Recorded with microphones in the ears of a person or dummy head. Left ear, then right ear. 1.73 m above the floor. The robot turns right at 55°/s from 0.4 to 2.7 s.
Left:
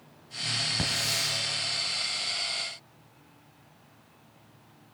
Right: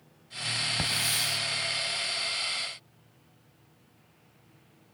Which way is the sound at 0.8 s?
155° right.